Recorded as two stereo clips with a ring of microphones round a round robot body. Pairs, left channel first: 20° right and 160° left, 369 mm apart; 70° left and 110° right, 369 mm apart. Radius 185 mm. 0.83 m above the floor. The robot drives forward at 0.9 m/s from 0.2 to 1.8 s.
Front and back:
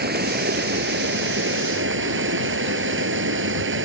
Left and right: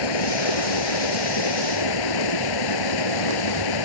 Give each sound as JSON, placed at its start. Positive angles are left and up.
{"t": 0.0, "sound": "running water", "azimuth_deg": 90}